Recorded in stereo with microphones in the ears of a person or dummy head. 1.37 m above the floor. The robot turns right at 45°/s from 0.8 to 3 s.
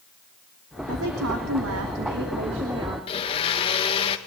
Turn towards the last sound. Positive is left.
turn(degrees=30)  # may be behind; listen again after turning